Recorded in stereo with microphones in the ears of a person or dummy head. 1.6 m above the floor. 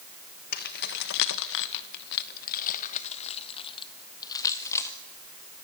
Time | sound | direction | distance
0.5 | keys jangling | 50° left (ahead or behind) | 1.3 m